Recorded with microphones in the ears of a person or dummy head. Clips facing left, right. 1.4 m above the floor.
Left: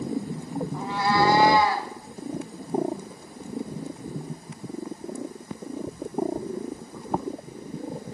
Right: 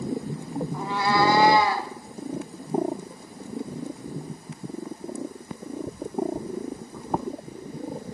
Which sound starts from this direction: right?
A cat meowing, at 0.7 s.